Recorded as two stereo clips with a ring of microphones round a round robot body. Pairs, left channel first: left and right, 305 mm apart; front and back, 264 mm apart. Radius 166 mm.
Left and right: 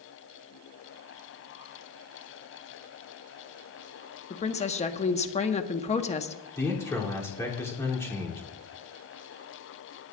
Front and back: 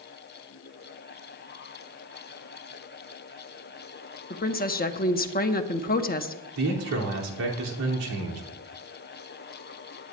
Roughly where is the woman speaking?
Ahead left.